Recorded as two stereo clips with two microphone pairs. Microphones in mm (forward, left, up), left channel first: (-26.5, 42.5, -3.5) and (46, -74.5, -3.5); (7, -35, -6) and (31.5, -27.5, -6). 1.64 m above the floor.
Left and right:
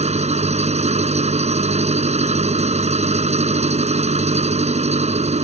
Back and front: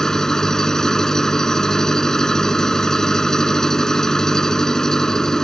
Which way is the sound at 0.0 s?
95° right.